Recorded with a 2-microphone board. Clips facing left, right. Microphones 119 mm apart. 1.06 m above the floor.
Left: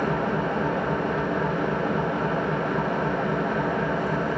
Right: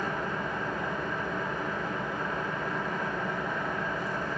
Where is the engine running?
75° left (ahead or behind), 1.0 m.